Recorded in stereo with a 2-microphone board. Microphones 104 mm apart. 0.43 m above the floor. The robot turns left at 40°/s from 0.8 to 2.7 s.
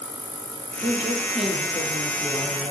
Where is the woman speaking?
150° right, 8.5 m; by 2.7 s 130° left, 8.5 m.